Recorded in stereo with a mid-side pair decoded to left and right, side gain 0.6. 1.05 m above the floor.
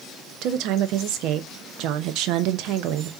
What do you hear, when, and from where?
0.4 s a woman speaking: 70° right, 0.7 m